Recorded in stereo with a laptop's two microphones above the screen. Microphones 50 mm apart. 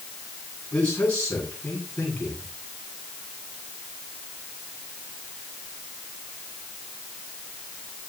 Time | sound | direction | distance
0.7 | a man speaking | 25° left (ahead or behind) | 9 m